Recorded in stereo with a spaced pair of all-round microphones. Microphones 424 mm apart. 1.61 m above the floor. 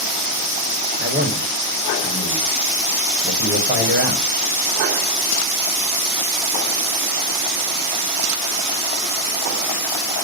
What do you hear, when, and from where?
1.0 s a man speaking: 20° right (ahead or behind), 0.9 m